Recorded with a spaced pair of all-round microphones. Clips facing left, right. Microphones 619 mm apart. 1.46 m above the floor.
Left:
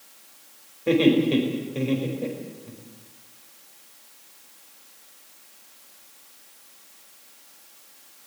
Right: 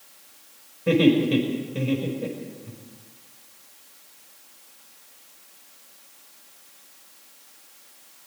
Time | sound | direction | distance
0.9 | laughter | 40° right (ahead or behind) | 5 m